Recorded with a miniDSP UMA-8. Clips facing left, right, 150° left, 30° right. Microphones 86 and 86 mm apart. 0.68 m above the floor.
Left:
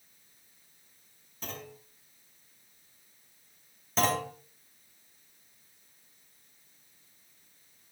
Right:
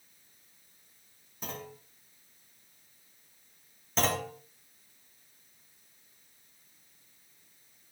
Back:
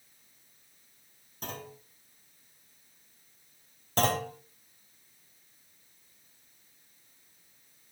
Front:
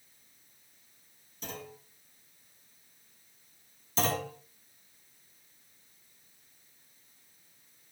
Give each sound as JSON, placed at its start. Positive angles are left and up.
{"t": 1.4, "sound": "a clunk", "azimuth_deg": -170, "distance_m": 5.5}
{"t": 4.0, "sound": "a clunk", "azimuth_deg": 180, "distance_m": 3.5}